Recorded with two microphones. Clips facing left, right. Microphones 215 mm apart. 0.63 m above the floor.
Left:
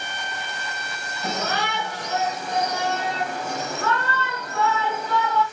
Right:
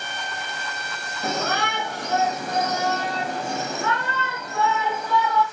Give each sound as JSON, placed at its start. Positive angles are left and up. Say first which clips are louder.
{"t": 1.2, "sound": "a shout", "louder": "right 1 dB", "side_deg": -50, "distance_m": 1.9}